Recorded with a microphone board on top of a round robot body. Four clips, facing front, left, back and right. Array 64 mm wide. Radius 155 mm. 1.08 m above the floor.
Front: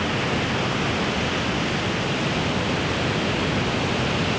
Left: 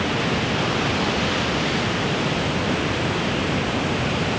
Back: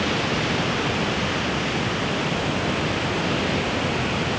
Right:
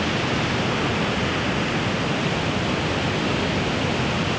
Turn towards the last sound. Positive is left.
No sound to turn to.